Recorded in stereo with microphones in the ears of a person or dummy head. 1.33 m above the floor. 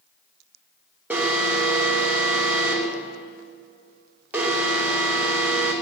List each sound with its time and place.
1.1 s an alarm: 5° right (ahead or behind), 2.5 m